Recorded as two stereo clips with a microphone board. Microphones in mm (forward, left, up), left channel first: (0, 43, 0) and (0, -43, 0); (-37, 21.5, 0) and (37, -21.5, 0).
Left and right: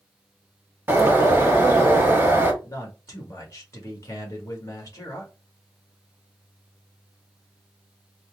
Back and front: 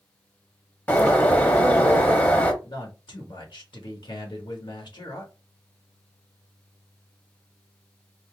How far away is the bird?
About 1.0 m.